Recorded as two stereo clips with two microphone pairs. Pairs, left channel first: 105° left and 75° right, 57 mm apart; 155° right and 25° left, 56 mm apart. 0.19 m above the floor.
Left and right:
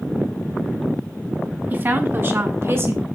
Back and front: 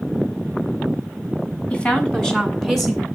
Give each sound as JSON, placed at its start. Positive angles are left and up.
{"t": 1.7, "sound": "a woman speaking", "azimuth_deg": -100, "distance_m": 1.6}